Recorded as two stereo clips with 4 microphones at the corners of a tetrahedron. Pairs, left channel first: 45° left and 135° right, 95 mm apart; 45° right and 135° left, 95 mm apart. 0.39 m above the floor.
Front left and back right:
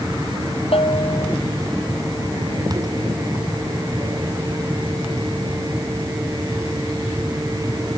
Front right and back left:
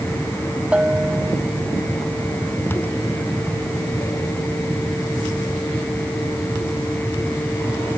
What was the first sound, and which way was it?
A bell, 60° left.